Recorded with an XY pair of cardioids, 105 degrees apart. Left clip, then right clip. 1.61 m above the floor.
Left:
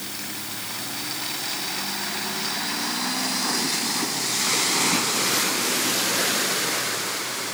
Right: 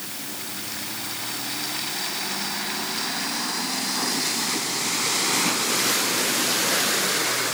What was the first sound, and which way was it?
Only background noise.